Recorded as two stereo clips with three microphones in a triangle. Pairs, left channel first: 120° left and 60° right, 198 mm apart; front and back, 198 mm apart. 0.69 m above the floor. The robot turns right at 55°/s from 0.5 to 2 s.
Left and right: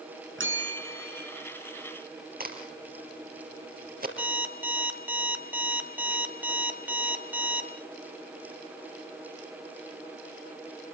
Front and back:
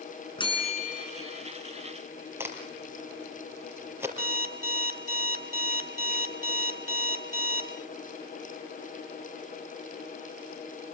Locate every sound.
0.4 s a bell: 65° right, 5.5 m; by 1.3 s 20° right, 5.5 m
2.4 s a crack: 105° right, 3.5 m
4.2 s an alarm clock: 140° right, 1.6 m